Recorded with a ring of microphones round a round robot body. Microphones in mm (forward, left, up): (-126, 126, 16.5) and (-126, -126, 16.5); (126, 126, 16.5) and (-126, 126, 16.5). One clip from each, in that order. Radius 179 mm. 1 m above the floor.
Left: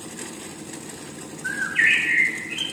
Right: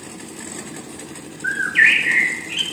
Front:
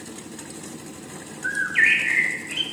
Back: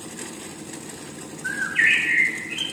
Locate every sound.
1.4 s a bird: 50° right, 1.2 m